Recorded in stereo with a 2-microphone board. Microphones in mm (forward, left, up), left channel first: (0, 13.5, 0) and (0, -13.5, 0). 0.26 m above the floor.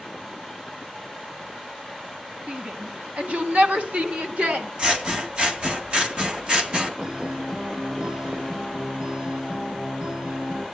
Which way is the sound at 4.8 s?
40° right (ahead or behind).